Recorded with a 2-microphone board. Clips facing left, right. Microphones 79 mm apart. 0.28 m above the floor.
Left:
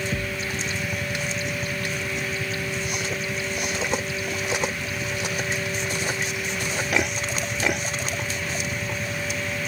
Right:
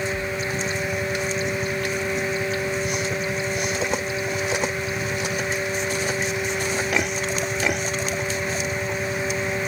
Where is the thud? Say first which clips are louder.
Right 2 dB; 60° left (ahead or behind).